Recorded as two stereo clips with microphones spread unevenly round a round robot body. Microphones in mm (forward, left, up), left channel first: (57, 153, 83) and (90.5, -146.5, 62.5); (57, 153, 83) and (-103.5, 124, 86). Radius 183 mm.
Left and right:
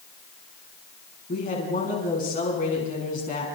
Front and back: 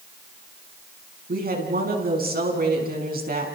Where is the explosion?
I don't hear an explosion.